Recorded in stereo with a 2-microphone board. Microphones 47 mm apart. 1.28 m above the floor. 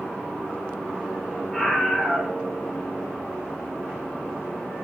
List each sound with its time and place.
1.5 s a scream: 15° left (ahead or behind), 3.5 m